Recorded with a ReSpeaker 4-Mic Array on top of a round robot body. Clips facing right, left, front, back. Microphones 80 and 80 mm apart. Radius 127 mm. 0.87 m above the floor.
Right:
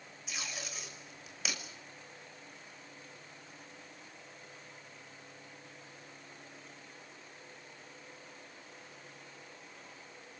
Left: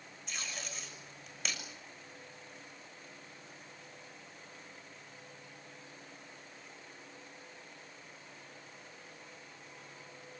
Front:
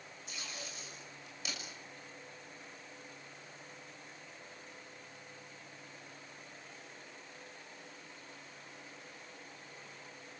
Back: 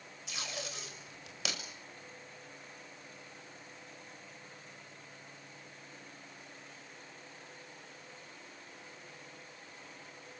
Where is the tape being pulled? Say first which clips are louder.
Right 1 dB, back 6 dB; 175° right, 6 m.